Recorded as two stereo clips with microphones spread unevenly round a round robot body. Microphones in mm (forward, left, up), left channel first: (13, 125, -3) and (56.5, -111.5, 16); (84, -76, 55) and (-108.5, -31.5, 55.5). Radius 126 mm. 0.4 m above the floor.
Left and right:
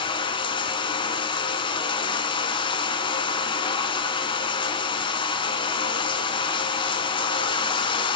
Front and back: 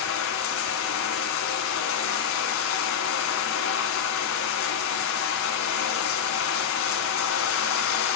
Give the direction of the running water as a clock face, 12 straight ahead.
11 o'clock.